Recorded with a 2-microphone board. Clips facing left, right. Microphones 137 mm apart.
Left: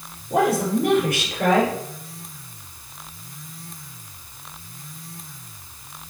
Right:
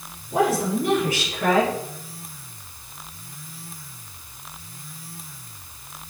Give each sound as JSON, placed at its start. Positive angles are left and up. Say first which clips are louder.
{"t": 0.3, "sound": "a woman speaking", "louder": "left 2 dB", "side_deg": 65, "distance_m": 5.0}